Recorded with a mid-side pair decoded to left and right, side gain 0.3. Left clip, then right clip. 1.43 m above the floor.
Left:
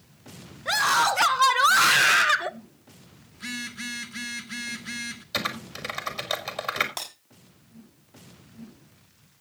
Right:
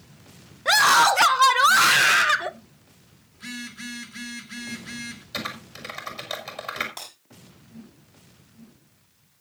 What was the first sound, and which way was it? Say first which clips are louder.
A scream: right 5 dB; 70° right.